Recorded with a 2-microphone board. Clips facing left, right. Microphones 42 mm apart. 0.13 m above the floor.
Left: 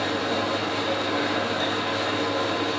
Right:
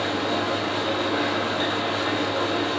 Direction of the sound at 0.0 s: 40° right (ahead or behind).